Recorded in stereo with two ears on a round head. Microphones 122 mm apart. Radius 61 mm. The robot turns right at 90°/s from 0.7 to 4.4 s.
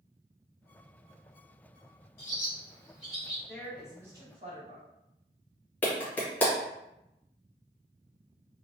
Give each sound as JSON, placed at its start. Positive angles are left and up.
{"t": 2.2, "sound": "a bird", "side_deg": 65, "distance_m": 1.6}
{"t": 3.5, "sound": "a woman speaking", "azimuth_deg": 150, "distance_m": 1.1}
{"t": 5.8, "sound": "a clap", "side_deg": 15, "distance_m": 0.8}